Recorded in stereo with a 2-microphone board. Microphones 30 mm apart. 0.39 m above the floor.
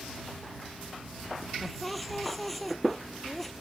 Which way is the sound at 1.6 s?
Centre (ahead or behind).